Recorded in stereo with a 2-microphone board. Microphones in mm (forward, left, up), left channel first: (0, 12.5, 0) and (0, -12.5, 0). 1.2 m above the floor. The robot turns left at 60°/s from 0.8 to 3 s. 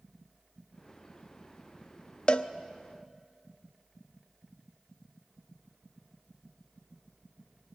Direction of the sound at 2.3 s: 45° left (ahead or behind).